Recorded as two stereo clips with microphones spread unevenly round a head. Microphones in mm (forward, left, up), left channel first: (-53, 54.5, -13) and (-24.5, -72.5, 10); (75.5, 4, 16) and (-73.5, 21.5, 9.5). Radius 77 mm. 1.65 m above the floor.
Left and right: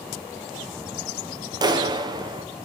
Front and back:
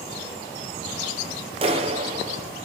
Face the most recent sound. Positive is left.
turn(degrees=-130)